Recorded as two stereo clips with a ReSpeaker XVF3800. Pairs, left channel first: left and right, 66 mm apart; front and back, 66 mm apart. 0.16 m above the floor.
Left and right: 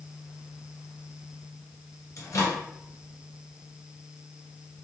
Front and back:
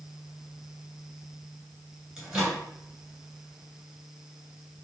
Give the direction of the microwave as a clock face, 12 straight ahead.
9 o'clock.